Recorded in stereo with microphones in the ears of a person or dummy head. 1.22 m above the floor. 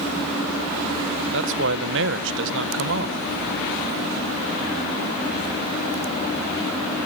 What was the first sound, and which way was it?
A man speaking, 65° right (ahead or behind).